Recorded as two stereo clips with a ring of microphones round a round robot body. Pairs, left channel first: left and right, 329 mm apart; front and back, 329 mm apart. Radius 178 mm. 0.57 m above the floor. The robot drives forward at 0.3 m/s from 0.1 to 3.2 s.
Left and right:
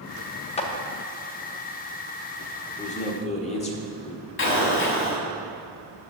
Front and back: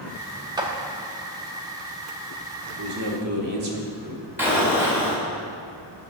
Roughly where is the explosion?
Left.